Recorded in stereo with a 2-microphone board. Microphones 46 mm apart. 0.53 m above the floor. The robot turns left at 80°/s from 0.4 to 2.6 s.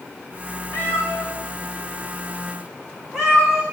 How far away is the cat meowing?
About 9.5 m.